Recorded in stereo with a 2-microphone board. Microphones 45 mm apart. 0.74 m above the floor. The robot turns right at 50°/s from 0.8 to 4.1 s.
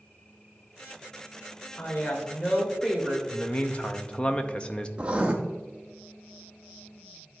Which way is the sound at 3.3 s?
30° left (ahead or behind).